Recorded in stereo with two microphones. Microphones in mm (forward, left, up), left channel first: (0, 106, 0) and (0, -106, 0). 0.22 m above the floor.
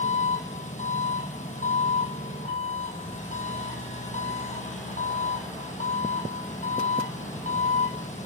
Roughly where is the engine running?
Left.